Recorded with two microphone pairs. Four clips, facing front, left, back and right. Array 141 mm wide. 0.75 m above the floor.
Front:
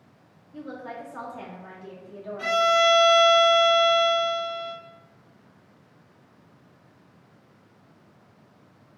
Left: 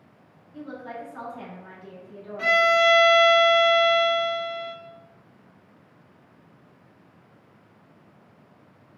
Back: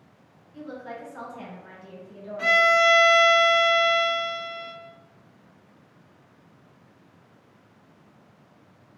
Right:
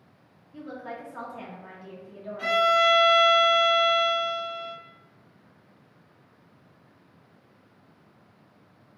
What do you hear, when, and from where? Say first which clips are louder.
0.5 s a woman speaking: left 1 dB, front 1 dB; 30° right, 1.5 m
2.4 s a violin: left 2 dB, back 1 dB; 135° left, 1.0 m